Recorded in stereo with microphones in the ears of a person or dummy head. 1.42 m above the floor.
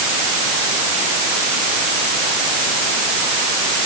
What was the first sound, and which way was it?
Only background noise.